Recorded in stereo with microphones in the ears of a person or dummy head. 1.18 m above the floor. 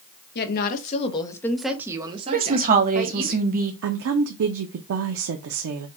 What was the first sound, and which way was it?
A woman speaking, 55° left (ahead or behind).